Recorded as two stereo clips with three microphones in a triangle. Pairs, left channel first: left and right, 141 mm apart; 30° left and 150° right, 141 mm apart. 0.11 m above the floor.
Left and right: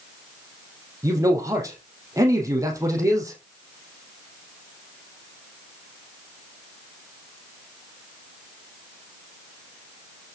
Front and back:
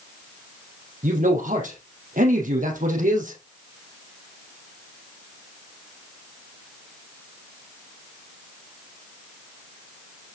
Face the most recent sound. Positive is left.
turn(degrees=-155)